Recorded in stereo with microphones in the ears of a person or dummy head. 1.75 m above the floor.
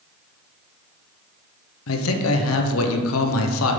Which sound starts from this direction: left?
A man speaking, at 1.9 s.